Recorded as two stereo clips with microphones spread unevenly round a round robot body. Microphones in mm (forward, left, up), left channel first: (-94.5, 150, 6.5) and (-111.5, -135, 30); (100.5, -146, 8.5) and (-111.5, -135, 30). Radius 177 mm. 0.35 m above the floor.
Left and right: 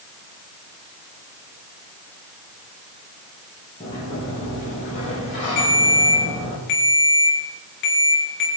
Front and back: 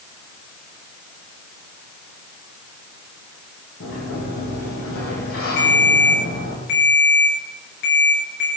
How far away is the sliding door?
About 6.5 m.